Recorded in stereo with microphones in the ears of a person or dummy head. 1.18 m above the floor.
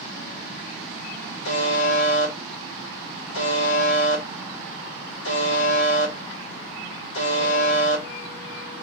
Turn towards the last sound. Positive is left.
turn(degrees=70)  # may be behind; listen again after turning